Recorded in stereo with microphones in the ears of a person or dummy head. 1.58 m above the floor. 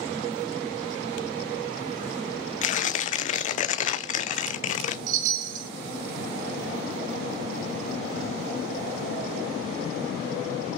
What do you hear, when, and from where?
2.6 s tearing paper: 45° left (ahead or behind), 0.6 m
5.1 s a chime: 50° right (ahead or behind), 1.1 m